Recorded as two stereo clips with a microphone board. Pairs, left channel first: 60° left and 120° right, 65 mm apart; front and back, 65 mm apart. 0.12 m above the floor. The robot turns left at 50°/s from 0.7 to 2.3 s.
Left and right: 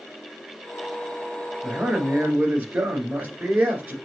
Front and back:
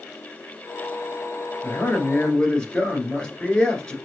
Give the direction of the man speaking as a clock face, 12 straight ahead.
1 o'clock.